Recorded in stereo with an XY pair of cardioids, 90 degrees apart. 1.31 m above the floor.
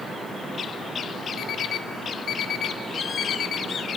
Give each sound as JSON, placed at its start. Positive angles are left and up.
{"t": 1.4, "sound": "an alarm clock", "azimuth_deg": 70, "distance_m": 1.8}